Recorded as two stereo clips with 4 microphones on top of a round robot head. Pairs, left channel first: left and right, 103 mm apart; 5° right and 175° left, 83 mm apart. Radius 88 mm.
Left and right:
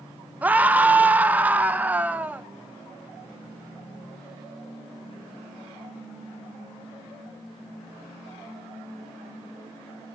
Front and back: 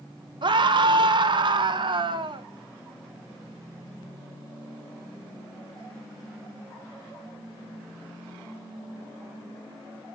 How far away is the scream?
About 1.1 m.